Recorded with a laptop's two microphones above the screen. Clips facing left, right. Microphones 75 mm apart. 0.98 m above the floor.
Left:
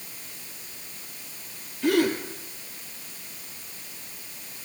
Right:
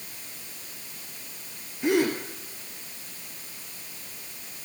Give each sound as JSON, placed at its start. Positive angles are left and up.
{"t": 1.8, "sound": "a gasp", "side_deg": -20, "distance_m": 6.0}